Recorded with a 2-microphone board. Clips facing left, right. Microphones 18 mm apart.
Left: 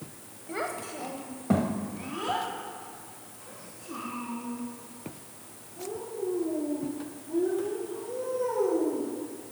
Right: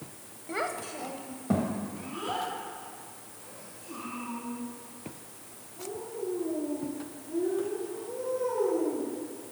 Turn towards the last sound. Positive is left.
turn(degrees=40)  # may be behind; listen again after turning